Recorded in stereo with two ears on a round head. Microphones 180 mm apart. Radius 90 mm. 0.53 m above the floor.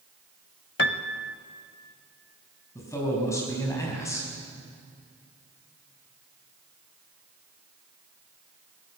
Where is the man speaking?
15° left (ahead or behind), 5 m.